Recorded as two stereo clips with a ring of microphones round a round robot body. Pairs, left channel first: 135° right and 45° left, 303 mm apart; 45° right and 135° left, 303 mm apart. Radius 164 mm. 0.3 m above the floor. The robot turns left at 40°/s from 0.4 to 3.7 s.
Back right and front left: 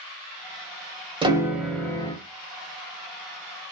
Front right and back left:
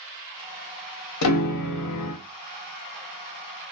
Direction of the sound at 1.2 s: 25° right.